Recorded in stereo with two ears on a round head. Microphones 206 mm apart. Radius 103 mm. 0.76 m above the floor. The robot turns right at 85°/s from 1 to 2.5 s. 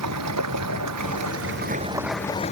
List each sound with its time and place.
0.0 s running water: 95° right; by 2.5 s 30° left